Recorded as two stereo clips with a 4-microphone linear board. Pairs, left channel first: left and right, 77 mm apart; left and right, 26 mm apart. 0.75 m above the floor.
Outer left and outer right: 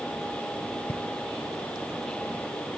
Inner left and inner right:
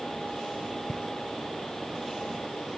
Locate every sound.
0.9 s footsteps: 30° left (ahead or behind), 0.8 m